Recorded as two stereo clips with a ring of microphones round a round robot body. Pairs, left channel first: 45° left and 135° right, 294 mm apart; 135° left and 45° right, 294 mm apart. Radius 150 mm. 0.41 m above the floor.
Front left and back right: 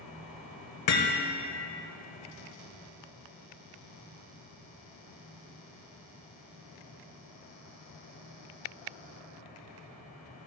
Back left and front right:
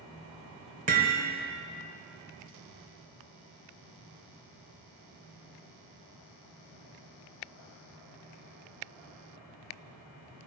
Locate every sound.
0.9 s hammering: 20° left, 0.9 m